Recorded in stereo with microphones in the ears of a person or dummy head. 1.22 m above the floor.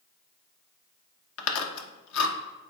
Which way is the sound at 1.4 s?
85° left.